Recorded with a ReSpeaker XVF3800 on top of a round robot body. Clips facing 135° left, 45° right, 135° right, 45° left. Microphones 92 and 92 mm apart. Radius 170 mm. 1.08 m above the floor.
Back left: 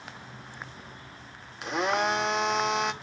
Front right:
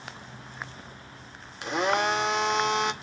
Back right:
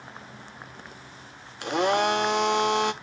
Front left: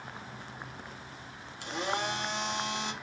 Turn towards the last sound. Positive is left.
turn(degrees=-135)